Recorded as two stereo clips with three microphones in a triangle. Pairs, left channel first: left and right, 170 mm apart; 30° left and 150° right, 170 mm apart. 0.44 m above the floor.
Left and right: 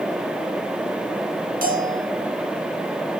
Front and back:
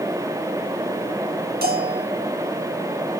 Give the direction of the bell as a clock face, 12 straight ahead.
4 o'clock.